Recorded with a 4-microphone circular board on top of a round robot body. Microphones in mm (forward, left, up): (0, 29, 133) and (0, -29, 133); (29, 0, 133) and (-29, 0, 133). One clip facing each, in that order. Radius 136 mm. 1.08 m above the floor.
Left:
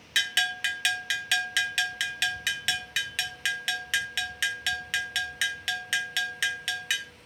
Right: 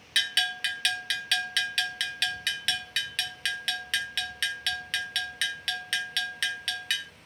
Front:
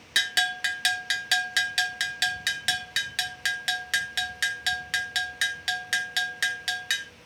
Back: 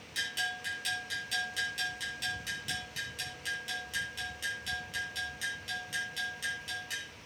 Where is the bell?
10° left, 0.8 m.